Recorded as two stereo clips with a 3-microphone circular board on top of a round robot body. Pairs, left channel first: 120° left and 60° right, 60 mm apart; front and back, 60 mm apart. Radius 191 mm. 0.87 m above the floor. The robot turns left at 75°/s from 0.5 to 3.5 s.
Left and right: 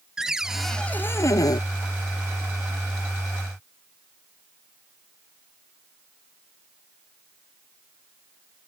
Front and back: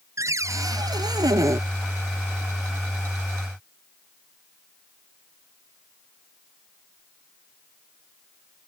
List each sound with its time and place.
0.2 s a cupboard door: 140° right; by 1.6 s 135° left